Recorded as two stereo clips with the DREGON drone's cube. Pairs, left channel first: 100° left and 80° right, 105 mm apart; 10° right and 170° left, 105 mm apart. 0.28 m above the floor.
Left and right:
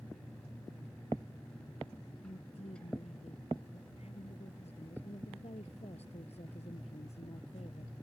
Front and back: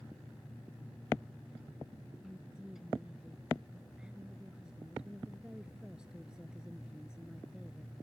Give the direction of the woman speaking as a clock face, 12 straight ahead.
9 o'clock.